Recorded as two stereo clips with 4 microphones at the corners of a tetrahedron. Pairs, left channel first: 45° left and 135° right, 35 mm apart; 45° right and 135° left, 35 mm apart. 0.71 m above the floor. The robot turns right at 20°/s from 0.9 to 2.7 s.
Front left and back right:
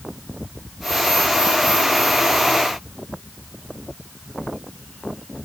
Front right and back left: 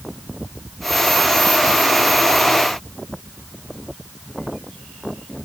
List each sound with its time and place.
Only background noise.